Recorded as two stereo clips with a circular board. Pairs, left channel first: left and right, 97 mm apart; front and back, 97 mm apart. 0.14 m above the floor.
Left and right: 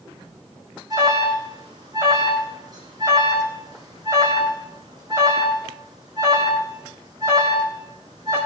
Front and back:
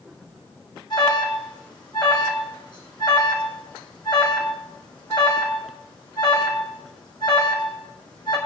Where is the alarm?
40° right, 5 m.